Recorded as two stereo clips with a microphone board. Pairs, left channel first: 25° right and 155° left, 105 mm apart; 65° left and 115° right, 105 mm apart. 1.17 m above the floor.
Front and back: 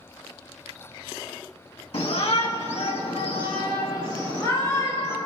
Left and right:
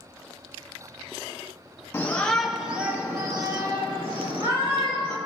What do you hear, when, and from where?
1.9 s a shout: straight ahead, 1.6 m; by 5.2 s 80° right, 3.5 m